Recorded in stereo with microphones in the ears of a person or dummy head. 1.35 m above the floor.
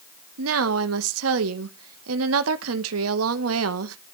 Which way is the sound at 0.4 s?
80° right.